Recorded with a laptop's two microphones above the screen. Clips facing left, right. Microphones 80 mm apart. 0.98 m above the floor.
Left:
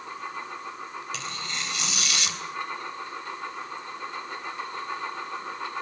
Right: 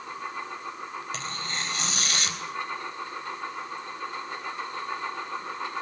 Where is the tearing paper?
40° right (ahead or behind), 3.5 m.